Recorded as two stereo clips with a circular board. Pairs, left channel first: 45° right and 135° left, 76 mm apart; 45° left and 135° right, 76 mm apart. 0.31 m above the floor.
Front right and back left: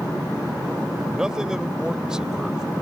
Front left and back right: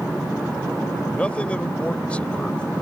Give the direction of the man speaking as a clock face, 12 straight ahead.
9 o'clock.